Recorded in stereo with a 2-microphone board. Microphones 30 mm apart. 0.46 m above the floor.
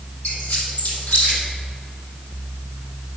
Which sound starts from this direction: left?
A squeak, at 0.2 s.